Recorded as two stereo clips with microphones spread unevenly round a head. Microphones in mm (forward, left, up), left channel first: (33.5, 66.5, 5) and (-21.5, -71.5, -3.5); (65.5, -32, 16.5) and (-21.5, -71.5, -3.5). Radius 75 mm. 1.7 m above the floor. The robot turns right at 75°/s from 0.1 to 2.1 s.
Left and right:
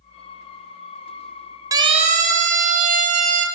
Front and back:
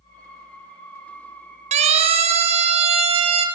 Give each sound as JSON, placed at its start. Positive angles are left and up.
{"t": 1.7, "sound": "a siren", "azimuth_deg": 180, "distance_m": 5.0}